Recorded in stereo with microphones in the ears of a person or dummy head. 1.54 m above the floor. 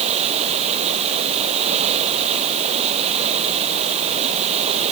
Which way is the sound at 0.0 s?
35° right (ahead or behind).